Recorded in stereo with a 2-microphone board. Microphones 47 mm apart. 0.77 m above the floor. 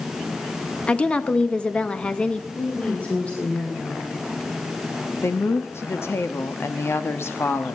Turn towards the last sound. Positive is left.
turn(degrees=60)  # may be behind; listen again after turning